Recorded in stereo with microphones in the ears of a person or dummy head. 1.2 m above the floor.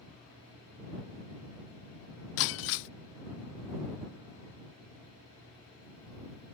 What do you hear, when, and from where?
2.4 s breaking glass: 70° left (ahead or behind)